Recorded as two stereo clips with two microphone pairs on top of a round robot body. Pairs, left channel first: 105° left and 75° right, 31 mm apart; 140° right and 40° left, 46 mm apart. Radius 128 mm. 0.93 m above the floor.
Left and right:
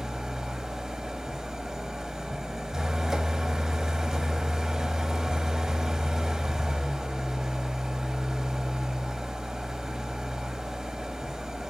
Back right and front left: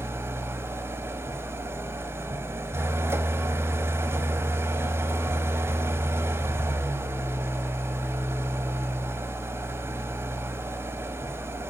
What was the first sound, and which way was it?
An engine running, straight ahead.